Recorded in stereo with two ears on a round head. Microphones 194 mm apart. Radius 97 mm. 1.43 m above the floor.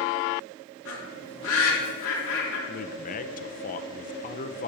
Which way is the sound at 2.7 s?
40° left (ahead or behind).